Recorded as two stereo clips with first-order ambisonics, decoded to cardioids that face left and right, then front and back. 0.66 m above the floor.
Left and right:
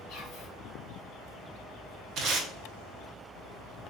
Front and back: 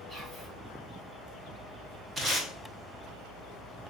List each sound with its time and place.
0.1 s whispering: 120° left, 1.5 m
2.2 s tape being pulled: 120° right, 0.7 m